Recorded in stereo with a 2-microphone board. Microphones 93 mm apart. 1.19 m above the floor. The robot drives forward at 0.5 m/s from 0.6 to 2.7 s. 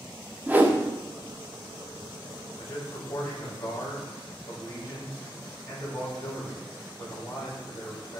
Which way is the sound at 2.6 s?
30° left (ahead or behind).